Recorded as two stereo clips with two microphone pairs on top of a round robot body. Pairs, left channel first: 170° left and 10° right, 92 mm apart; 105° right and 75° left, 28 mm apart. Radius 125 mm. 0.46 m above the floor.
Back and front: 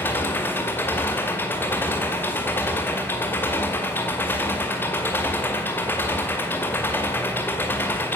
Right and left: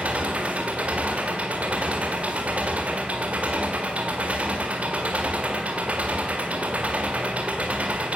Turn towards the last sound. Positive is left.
turn(degrees=110)